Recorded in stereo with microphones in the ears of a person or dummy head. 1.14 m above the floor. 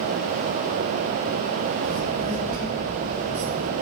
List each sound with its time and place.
1.8 s a child speaking: 45° right (ahead or behind), 2.5 m